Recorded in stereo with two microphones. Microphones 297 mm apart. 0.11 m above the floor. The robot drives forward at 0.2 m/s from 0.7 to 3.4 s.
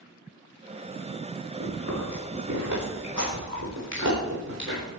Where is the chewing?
70° right (ahead or behind), 9.5 m; by 4.8 s 65° right (ahead or behind), 9.5 m.